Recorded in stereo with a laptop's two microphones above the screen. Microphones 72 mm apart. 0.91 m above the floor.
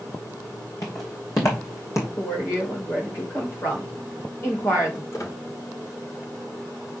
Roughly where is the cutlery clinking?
I don't hear cutlery clinking.